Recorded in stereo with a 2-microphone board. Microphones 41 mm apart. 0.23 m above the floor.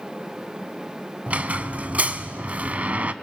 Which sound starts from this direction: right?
A squeak, at 1.3 s.